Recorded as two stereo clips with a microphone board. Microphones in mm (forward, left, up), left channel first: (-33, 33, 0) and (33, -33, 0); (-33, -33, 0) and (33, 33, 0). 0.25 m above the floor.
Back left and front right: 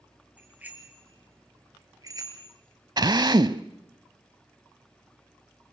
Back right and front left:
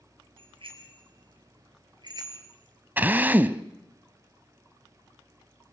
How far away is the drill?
About 0.6 m.